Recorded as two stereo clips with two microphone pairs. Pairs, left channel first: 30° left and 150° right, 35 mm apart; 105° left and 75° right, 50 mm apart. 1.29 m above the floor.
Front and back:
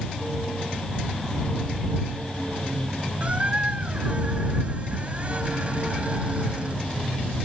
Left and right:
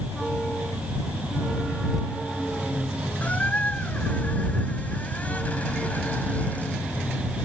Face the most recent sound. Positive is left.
turn(degrees=165)